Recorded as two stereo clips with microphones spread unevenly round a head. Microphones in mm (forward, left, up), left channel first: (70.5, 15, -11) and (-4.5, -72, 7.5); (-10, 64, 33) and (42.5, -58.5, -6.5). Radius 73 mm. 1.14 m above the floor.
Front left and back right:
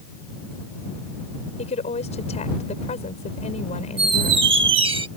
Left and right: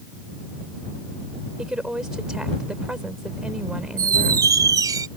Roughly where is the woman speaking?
Ahead.